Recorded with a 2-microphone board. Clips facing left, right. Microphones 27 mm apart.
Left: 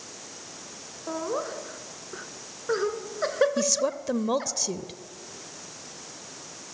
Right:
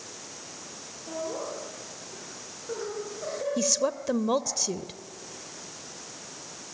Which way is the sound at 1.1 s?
65° left (ahead or behind).